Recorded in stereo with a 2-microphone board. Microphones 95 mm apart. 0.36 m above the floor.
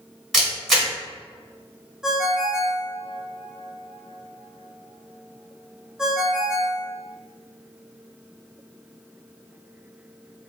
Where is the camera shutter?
Centre (ahead or behind), 2.0 m.